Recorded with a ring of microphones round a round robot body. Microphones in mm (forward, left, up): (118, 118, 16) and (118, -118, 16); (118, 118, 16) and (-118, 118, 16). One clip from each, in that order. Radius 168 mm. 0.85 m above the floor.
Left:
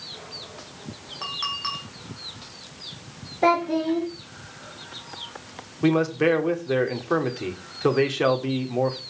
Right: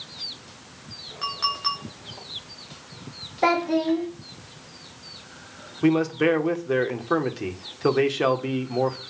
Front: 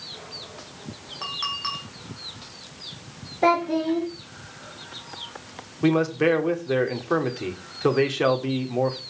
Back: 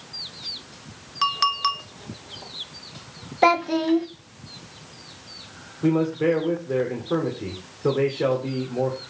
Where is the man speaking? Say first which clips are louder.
Even, front 1 dB; 10° right, 2 m.